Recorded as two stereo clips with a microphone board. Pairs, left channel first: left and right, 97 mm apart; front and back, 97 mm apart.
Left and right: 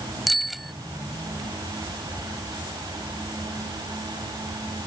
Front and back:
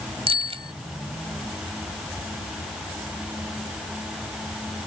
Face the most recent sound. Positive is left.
turn(degrees=180)